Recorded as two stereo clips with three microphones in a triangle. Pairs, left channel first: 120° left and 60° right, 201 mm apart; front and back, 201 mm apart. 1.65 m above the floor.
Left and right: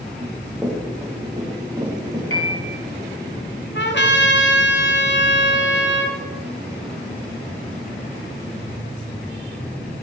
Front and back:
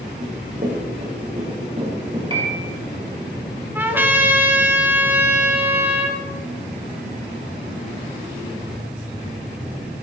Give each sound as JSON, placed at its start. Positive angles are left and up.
{"t": 0.2, "sound": "running footsteps", "azimuth_deg": -140, "distance_m": 6.0}
{"t": 2.3, "sound": "a piano", "azimuth_deg": 115, "distance_m": 4.5}
{"t": 3.8, "sound": "a trumpet", "azimuth_deg": 100, "distance_m": 2.0}